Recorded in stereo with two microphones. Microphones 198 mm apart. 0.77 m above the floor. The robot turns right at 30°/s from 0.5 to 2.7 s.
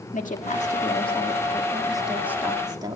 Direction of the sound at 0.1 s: 135° left.